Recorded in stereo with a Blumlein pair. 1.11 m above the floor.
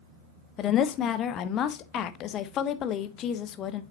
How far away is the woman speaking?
About 0.9 m.